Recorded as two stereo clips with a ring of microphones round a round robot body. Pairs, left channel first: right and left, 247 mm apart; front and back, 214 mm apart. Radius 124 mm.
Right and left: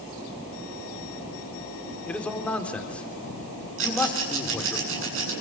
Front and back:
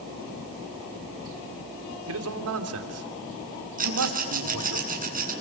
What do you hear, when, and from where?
2.1 s a man speaking: 175° right, 3 m
3.8 s a rattle: 130° left, 7.5 m